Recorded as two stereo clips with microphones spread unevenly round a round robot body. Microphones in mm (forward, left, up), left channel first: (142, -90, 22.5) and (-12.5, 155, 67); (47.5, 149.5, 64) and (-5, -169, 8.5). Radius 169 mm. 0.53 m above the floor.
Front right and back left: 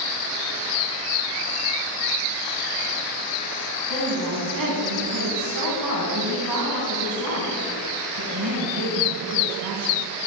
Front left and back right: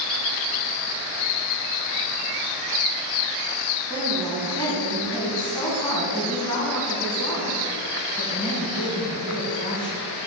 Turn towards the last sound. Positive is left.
turn(degrees=160)